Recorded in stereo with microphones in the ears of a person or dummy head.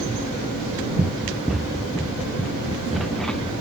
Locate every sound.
1.0 s running footsteps: 5° right (ahead or behind); by 3.5 s centre (ahead or behind)